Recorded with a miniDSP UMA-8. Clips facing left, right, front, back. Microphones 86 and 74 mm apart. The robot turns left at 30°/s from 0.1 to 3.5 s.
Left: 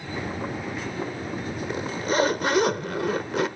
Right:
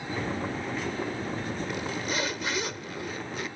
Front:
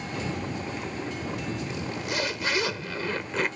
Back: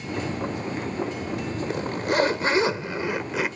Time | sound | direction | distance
1.7 | a zipper | 145° left | ?